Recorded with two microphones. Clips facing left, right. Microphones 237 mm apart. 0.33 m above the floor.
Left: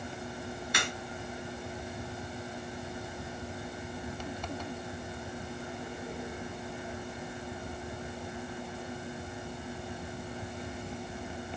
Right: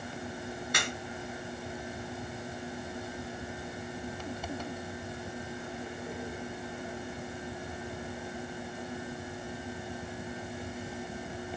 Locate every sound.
0.7 s a crack: 55° right (ahead or behind), 1.8 m